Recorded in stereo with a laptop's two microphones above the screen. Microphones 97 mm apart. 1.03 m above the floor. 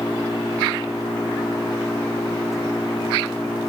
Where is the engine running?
30° left (ahead or behind).